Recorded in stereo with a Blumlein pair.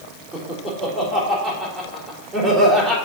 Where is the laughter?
10° right, 3.5 m.